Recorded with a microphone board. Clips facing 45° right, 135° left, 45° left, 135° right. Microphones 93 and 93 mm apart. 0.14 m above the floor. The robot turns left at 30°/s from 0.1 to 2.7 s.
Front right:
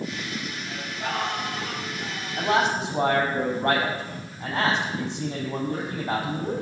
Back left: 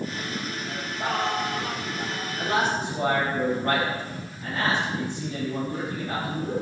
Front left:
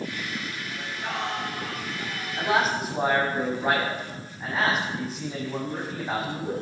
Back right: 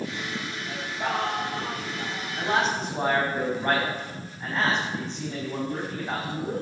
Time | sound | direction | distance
0.7 | singing | 155° right | 3 m
2.4 | a man speaking | 30° right | 5.5 m